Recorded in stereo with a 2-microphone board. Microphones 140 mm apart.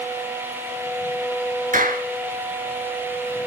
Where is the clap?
70° right (ahead or behind), 4 m.